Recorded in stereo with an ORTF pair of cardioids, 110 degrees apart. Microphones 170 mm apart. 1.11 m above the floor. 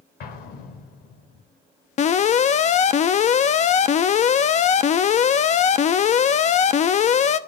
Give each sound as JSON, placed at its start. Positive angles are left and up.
{"t": 0.2, "sound": "an explosion", "azimuth_deg": 65, "distance_m": 3.0}
{"t": 2.0, "sound": "an alarm", "azimuth_deg": 45, "distance_m": 0.8}